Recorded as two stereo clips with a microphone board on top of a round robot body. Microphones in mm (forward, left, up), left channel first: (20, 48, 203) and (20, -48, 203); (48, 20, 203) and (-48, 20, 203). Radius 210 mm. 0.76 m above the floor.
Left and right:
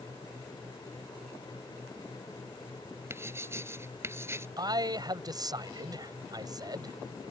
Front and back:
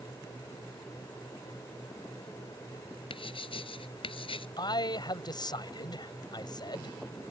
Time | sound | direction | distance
3.1 | writing | 25° right | ?
4.6 | a man speaking | 45° right | ?